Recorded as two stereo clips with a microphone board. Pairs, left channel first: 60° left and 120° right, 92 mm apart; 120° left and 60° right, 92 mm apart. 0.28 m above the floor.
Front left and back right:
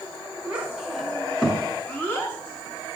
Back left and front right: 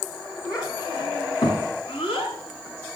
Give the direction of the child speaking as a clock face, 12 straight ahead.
7 o'clock.